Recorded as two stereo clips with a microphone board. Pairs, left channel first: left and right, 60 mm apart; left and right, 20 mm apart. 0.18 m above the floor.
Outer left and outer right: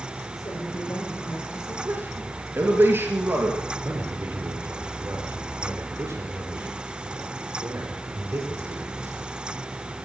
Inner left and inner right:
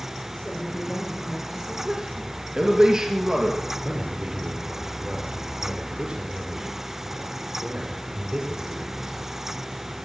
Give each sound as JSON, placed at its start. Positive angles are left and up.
{"t": 0.3, "sound": "a woman speaking", "side_deg": 55, "distance_m": 9.5}
{"t": 1.9, "sound": "a man speaking", "side_deg": -35, "distance_m": 3.5}
{"t": 3.8, "sound": "a man speaking", "side_deg": -45, "distance_m": 4.0}